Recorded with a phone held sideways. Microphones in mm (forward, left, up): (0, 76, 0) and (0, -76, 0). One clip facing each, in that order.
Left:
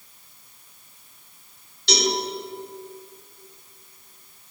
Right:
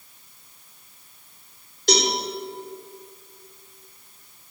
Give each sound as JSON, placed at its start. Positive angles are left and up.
{"t": 1.9, "sound": "a cowbell", "side_deg": -50, "distance_m": 2.5}